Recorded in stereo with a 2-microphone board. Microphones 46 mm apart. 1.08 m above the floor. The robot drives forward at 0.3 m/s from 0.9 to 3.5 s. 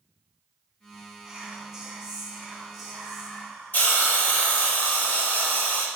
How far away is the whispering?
About 0.8 m.